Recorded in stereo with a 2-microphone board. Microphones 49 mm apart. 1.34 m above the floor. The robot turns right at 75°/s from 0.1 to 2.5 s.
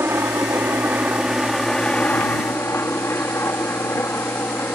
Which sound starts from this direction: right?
A helicopter, at 0.0 s.